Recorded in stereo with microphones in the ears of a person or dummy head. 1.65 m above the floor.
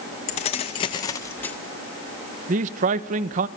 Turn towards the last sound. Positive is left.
turn(degrees=-40)  # may be behind; listen again after turning